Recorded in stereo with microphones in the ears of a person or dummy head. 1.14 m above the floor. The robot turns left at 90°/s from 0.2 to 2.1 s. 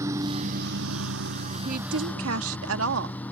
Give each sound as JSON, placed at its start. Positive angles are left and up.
{"t": 0.0, "sound": "a lawn mower", "azimuth_deg": -15}
{"t": 1.6, "sound": "a woman speaking", "azimuth_deg": -40}